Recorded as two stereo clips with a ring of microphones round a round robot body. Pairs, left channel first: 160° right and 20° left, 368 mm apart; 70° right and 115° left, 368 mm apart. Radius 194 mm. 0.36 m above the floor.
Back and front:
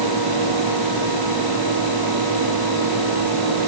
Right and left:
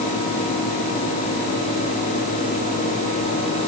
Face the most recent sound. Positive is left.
No sound to turn to.